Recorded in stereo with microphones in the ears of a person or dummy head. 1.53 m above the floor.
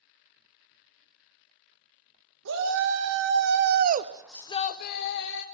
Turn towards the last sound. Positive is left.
turn(degrees=70)  # may be behind; listen again after turning